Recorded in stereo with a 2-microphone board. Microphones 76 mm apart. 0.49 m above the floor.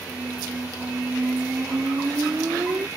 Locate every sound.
0.1 s a squeak: 35° right (ahead or behind)